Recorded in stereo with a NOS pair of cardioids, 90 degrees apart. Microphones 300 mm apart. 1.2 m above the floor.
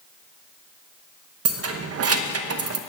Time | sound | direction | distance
1.4 | keys jangling | 55° right | 0.8 m